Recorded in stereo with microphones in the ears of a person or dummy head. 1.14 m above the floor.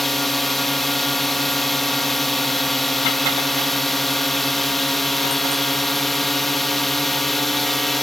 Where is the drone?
Centre (ahead or behind).